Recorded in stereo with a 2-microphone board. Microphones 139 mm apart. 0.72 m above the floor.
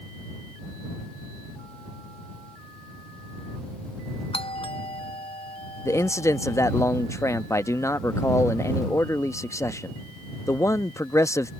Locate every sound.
4.3 s a doorbell: 40° left (ahead or behind)
5.8 s a man speaking: 20° left (ahead or behind)